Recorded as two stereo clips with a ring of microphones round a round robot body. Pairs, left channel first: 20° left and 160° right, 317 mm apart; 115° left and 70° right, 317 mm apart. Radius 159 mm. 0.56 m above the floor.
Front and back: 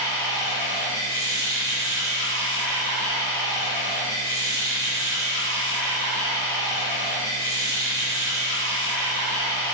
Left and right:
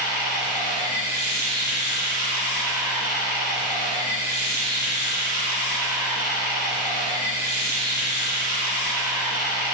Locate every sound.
0.0 s running water: 60° right, 1.2 m